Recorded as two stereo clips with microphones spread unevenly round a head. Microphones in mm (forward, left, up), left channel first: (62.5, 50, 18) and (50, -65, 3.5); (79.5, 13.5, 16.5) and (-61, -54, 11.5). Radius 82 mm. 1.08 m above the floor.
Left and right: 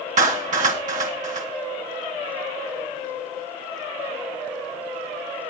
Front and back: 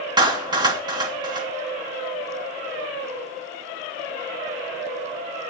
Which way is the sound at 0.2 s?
90° right.